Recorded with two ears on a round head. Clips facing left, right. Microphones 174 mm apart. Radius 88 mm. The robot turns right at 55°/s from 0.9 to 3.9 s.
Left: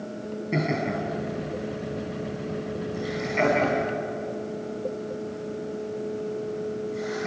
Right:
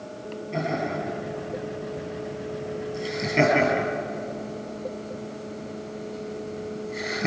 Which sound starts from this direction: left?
Laughter, at 0.5 s.